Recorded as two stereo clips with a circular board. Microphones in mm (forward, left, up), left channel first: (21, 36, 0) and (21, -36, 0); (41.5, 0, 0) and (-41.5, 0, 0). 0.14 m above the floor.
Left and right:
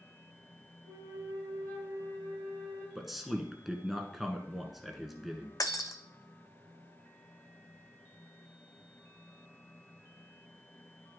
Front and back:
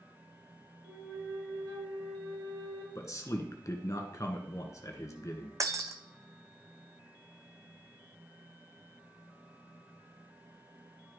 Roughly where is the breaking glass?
Behind left.